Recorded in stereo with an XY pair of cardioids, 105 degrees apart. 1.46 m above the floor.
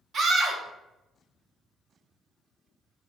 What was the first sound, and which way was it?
A scream, 50° right.